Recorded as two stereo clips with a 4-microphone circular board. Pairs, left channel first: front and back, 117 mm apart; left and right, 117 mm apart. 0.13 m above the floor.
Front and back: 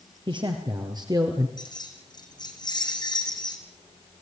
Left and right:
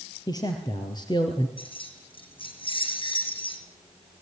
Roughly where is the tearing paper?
No tearing paper in this recording.